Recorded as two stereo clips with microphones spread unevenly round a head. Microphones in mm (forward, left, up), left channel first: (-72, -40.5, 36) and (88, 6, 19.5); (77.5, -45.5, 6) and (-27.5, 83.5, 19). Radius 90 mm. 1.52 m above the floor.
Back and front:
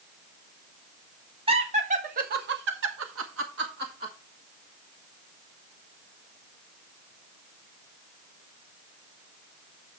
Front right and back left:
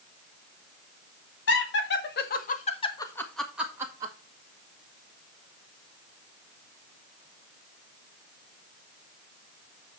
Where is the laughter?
40° right, 2.5 m; by 4.1 s 60° left, 2 m.